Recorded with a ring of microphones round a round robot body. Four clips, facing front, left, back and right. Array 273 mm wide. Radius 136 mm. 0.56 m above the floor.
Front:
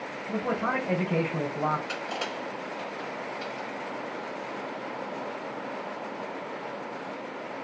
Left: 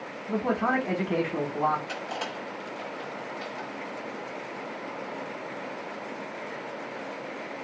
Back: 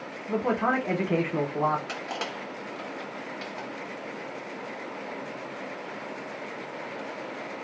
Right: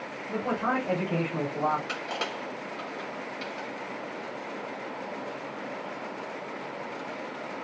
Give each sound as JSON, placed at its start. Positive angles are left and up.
{"t": 0.3, "sound": "a man speaking", "azimuth_deg": 145, "distance_m": 1.2}
{"t": 1.9, "sound": "crushing", "azimuth_deg": -140, "distance_m": 2.0}